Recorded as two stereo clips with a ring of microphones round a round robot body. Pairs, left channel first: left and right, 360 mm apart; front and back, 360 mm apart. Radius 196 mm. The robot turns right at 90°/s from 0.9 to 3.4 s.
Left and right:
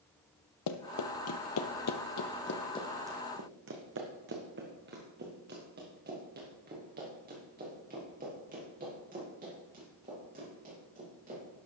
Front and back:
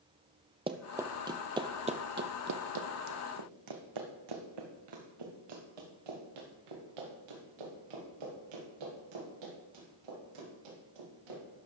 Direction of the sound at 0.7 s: 110° left.